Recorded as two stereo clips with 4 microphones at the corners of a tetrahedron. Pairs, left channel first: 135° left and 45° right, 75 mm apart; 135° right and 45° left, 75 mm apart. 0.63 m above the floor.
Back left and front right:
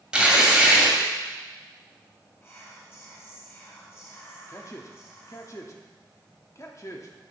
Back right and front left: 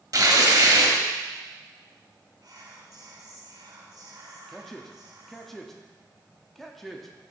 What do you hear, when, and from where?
0.1 s tearing paper: 30° left, 1.8 m
2.4 s whispering: 80° left, 2.5 m
4.5 s a man speaking: 140° left, 1.0 m